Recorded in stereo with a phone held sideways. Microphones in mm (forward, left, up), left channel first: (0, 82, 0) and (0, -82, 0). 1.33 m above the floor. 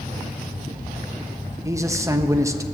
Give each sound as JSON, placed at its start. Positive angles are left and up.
{"t": 1.6, "sound": "a man speaking", "side_deg": -20, "distance_m": 1.0}